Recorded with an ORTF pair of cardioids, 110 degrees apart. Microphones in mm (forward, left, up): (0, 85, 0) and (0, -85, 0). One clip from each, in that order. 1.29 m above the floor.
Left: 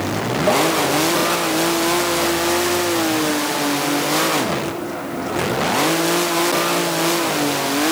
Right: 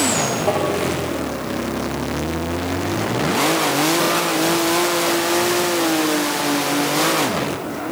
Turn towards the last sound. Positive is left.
turn(degrees=30)